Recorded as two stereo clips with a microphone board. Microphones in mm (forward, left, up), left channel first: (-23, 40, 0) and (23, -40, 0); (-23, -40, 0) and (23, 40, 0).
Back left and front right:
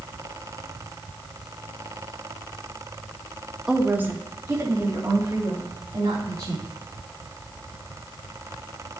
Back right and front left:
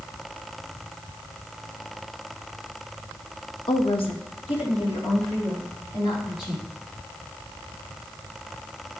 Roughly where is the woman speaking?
Behind right.